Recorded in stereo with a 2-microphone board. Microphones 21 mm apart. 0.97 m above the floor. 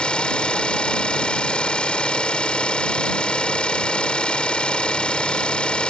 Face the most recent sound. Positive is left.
turn(degrees=55)  # may be behind; listen again after turning